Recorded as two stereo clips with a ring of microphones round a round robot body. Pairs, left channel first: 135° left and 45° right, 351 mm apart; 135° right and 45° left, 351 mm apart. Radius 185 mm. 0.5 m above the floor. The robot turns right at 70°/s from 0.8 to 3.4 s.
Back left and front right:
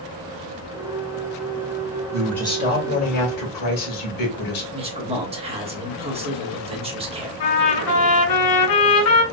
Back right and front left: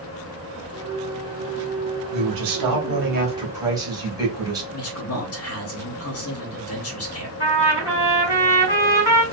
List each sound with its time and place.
2.1 s a man speaking: 35° left, 1.7 m; by 4.6 s 125° left, 1.7 m
4.7 s a man speaking: 115° right, 1.3 m
7.4 s a trumpet: 165° left, 2 m